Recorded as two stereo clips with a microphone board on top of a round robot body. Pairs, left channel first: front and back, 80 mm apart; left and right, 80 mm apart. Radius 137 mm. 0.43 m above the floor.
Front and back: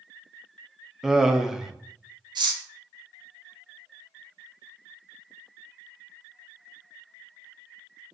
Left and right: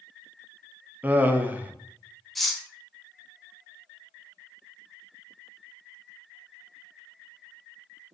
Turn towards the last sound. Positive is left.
turn(degrees=180)